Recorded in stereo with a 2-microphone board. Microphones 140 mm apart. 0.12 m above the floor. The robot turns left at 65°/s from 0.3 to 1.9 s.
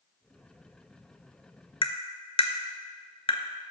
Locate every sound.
1.8 s tapping: 40° left (ahead or behind), 0.6 m; by 3.4 s 45° left (ahead or behind), 0.6 m